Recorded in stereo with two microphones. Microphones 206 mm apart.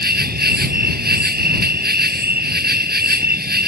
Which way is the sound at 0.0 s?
50° right (ahead or behind).